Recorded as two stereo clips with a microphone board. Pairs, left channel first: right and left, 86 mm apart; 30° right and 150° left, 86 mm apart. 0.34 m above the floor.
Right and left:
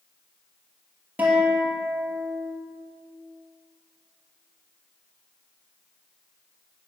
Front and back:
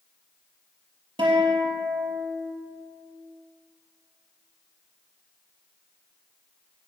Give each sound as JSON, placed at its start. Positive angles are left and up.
{"t": 1.2, "sound": "a guitar", "azimuth_deg": 160, "distance_m": 3.5}